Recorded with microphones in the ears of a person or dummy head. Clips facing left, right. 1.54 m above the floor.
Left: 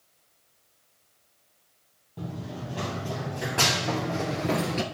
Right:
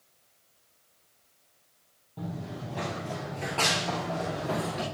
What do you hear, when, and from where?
2.2 s running footsteps: centre (ahead or behind), 2.5 m; by 4.8 s 25° left (ahead or behind), 1.6 m